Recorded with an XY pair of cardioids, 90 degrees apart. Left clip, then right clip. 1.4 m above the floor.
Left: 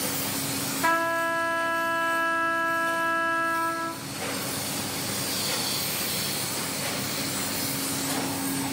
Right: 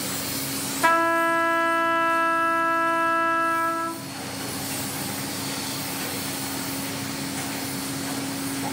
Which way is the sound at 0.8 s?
40° right.